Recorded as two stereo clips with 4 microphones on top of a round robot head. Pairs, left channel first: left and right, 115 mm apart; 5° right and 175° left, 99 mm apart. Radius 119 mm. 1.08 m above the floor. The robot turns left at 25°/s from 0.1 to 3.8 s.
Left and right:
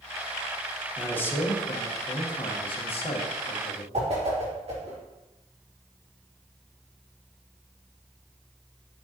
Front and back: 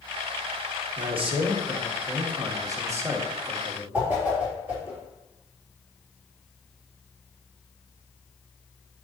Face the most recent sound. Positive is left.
turn(degrees=-110)